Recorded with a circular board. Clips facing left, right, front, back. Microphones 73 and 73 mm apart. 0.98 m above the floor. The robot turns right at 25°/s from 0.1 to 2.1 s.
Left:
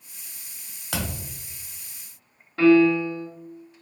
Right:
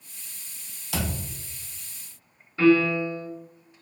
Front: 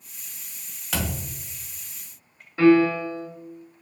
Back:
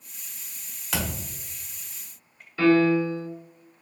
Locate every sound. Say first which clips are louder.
0.9 s a thud: right 1 dB, front 1 dB; 90° left, 1.1 m; by 1.3 s 100° left, 1.1 m
2.6 s a piano: left 3 dB, front 2 dB; 60° left, 1.8 m